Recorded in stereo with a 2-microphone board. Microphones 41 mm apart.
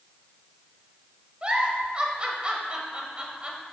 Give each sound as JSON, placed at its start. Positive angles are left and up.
{"t": 1.4, "sound": "a giggle", "side_deg": -25, "distance_m": 1.2}